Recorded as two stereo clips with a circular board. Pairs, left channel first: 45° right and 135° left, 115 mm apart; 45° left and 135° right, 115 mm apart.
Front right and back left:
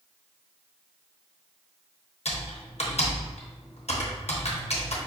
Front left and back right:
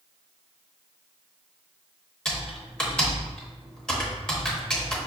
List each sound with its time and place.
2.2 s typing on a keyboard: 35° right, 0.9 m